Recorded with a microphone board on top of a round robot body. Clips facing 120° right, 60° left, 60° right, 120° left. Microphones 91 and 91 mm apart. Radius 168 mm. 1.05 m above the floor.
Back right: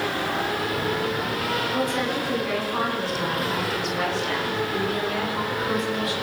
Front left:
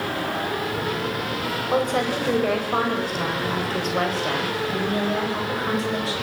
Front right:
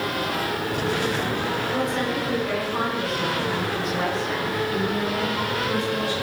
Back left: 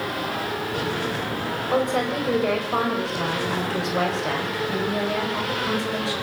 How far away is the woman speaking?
About 7.5 m.